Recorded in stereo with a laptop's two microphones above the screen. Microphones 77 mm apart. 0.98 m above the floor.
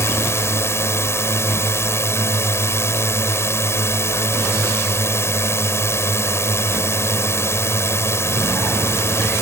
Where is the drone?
40° left (ahead or behind).